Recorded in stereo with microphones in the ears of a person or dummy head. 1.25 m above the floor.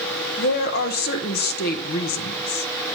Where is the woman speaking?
55° left (ahead or behind), 0.8 m.